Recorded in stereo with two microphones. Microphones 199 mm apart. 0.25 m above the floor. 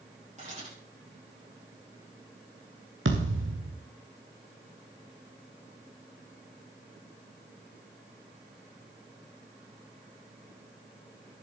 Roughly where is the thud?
Right.